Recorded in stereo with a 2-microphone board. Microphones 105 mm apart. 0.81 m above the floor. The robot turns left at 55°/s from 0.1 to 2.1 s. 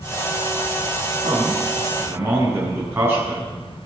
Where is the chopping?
No chopping in this recording.